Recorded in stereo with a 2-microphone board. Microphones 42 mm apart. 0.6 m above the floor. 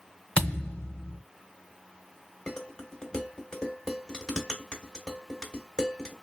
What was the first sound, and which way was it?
A thud, 25° left (ahead or behind).